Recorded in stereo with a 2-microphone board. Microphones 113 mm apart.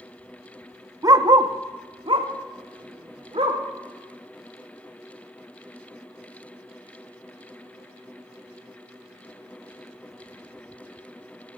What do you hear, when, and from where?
1.0 s a dog barking: 35° right (ahead or behind), 0.7 m; by 3.6 s 55° right (ahead or behind), 1.8 m